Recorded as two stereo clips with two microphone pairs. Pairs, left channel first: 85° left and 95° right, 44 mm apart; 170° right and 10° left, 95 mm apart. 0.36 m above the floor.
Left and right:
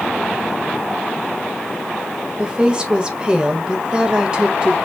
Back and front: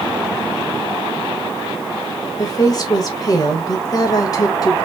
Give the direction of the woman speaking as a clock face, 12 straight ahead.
5 o'clock.